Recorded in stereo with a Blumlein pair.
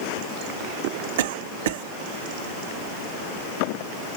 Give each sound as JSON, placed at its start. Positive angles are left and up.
{"t": 1.2, "sound": "a cough", "azimuth_deg": -55, "distance_m": 0.9}